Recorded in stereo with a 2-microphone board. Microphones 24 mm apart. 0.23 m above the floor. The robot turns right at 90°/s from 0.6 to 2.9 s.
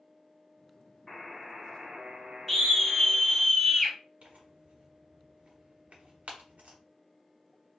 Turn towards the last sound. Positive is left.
turn(degrees=-65)  # may be behind; listen again after turning